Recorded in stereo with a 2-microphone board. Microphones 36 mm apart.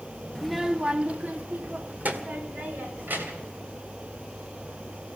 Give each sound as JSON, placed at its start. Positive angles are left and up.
{"t": 0.3, "sound": "a child speaking", "side_deg": 5, "distance_m": 0.6}